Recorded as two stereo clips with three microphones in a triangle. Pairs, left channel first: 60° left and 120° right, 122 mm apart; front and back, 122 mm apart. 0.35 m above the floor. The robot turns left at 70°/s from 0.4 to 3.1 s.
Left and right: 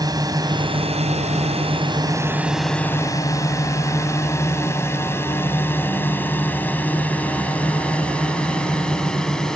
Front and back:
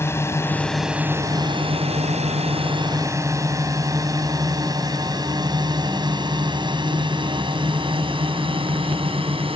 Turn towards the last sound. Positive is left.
turn(degrees=145)